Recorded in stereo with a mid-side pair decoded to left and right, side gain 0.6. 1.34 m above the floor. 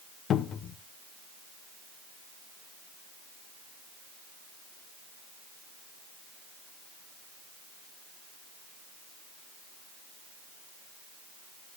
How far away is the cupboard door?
About 0.6 m.